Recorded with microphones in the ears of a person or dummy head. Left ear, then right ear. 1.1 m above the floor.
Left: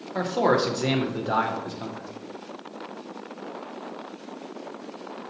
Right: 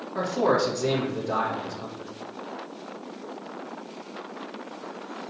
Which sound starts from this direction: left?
A man speaking, at 0.1 s.